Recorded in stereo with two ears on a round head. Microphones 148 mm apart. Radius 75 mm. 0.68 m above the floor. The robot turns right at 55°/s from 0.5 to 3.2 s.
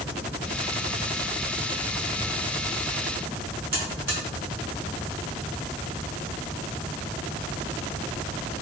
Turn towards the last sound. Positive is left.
turn(degrees=-15)  # may be behind; listen again after turning